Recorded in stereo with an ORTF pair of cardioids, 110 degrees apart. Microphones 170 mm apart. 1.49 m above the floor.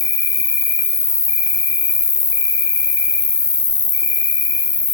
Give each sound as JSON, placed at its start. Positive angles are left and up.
{"t": 0.0, "sound": "an insect", "azimuth_deg": 20, "distance_m": 1.1}